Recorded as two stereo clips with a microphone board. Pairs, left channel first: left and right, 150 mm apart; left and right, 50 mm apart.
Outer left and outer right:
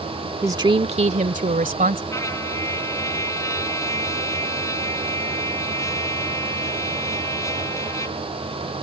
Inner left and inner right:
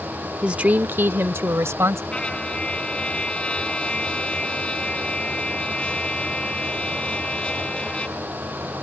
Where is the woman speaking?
20° right (ahead or behind); by 2.0 s 65° right (ahead or behind).